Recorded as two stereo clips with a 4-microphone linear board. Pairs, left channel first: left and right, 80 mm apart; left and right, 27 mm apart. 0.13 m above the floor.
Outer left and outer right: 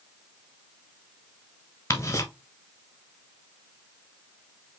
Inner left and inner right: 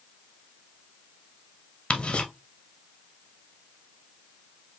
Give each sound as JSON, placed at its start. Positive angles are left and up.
{"t": 1.9, "sound": "ticking", "side_deg": 35, "distance_m": 1.0}